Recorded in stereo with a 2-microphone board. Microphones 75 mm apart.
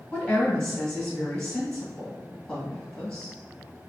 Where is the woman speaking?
10° left (ahead or behind), 1.9 m.